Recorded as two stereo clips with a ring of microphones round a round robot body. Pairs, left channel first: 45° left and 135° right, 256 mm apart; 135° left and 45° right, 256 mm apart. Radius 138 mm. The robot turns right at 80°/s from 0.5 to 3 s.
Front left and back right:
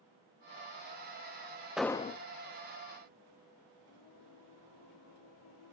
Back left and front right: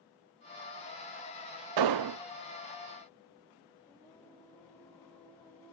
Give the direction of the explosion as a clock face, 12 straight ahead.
2 o'clock.